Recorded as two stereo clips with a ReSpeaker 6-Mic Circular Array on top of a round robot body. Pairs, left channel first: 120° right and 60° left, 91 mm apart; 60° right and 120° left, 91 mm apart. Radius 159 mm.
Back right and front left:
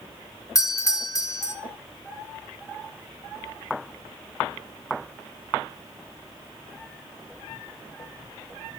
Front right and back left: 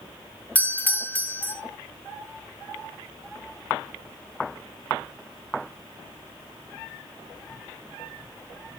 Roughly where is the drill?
I don't hear a drill.